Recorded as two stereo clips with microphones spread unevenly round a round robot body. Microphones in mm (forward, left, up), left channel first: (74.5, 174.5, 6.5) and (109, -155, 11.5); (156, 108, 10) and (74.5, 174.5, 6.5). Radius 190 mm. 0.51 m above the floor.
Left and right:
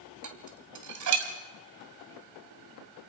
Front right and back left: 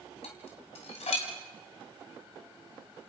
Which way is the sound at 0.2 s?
55° right.